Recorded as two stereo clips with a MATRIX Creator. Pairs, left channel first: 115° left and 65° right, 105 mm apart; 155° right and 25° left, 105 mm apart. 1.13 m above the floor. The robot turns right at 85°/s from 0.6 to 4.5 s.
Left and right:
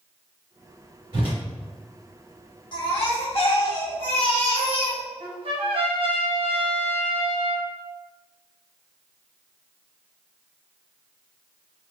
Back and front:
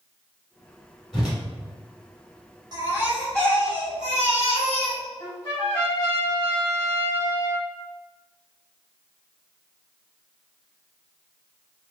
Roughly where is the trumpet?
Right.